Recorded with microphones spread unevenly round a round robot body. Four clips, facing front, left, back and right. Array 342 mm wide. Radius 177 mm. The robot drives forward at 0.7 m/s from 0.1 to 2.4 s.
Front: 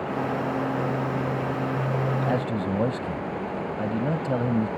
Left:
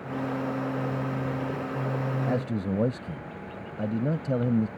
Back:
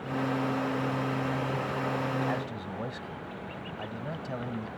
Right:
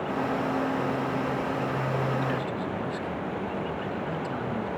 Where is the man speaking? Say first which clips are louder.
Left 1 dB, front 8 dB; 50° left; by 4.7 s 55° left.